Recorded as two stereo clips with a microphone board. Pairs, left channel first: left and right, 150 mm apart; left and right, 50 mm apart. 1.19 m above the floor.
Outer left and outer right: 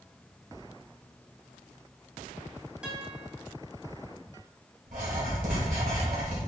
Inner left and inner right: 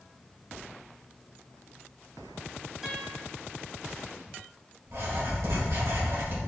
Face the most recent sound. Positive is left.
turn(degrees=-65)  # may be behind; listen again after turning